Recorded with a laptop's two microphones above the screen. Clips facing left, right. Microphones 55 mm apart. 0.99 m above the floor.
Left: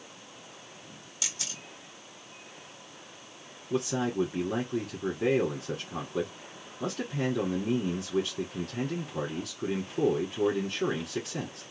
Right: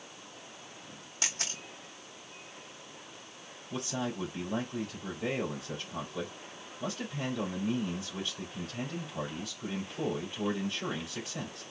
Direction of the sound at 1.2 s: 45° right (ahead or behind).